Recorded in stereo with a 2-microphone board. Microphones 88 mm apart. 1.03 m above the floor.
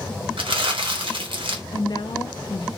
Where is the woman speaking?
55° left (ahead or behind), 0.5 m.